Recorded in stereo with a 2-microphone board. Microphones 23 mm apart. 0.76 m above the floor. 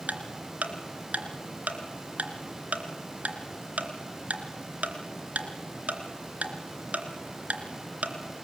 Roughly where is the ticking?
Right.